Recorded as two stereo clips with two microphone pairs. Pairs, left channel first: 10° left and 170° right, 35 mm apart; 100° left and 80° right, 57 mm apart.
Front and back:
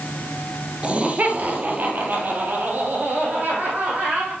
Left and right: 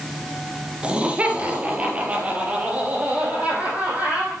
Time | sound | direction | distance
0.8 | laughter | 140° right | 1.5 m